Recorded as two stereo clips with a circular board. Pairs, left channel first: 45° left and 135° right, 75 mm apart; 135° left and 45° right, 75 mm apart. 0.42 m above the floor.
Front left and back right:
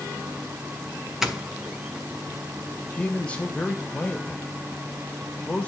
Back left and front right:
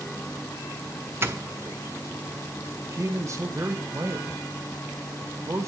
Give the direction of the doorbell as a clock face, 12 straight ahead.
2 o'clock.